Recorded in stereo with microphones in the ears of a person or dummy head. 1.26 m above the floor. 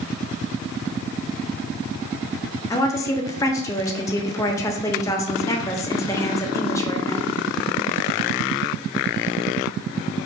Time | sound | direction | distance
2.7 | a woman speaking | 15° left (ahead or behind) | 0.5 m